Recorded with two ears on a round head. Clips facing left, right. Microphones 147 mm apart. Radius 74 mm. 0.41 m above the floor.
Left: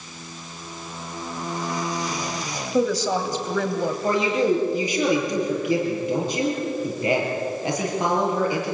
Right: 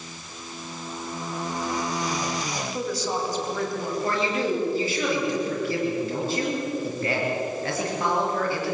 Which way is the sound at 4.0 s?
15° left (ahead or behind).